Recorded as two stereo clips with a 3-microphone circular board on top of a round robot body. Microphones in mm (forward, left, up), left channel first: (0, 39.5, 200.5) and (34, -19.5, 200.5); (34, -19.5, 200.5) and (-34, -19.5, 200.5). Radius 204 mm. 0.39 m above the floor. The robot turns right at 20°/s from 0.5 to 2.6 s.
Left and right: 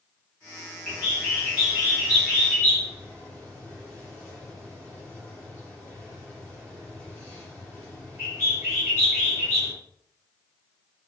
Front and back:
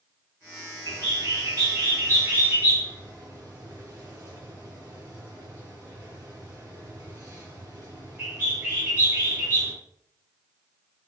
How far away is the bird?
About 6.5 m.